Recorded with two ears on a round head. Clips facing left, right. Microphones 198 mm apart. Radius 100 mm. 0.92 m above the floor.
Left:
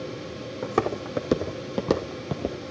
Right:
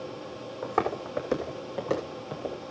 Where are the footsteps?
40° left (ahead or behind), 2 m; by 2.6 s 50° left (ahead or behind), 1.5 m.